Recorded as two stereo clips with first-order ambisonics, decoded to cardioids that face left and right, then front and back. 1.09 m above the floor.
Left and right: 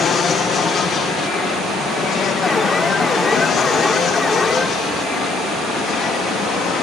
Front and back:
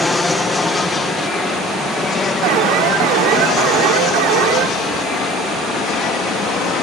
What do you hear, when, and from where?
0.0 s an aircraft: 75° left; by 6.8 s 40° left
2.4 s an alarm: 165° left